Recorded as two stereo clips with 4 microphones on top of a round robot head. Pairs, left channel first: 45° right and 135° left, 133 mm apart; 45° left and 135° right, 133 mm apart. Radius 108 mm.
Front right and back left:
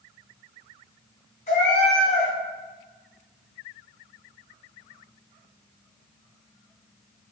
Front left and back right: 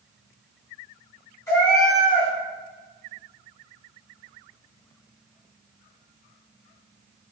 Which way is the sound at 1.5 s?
20° right.